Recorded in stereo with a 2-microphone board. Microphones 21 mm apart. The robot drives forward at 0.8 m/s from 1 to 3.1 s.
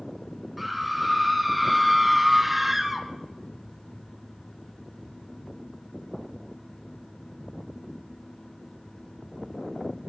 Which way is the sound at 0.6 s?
10° right (ahead or behind).